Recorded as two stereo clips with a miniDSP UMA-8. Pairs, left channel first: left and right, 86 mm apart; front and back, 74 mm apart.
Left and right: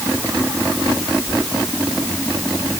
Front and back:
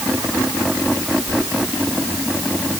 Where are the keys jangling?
150° right.